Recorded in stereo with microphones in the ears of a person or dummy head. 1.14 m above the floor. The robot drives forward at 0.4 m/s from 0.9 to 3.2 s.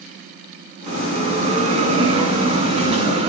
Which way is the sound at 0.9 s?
35° right (ahead or behind).